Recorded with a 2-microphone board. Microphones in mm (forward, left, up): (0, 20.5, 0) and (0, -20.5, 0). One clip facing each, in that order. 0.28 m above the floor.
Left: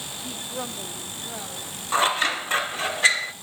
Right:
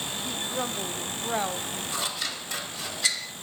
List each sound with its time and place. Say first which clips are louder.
0.2 s a woman speaking: right 2 dB; 10° left (ahead or behind), 1.2 m; by 1.8 s 50° right (ahead or behind), 1.5 m
1.9 s scissors: left 14 dB; 45° left (ahead or behind), 0.5 m